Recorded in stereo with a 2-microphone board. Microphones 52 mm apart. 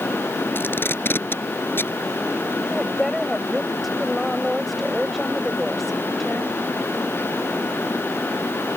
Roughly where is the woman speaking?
Centre.